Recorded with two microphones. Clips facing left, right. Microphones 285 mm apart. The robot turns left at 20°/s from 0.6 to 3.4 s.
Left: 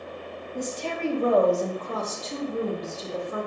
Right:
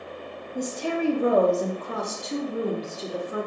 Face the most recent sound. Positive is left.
turn(degrees=-20)  # may be behind; listen again after turning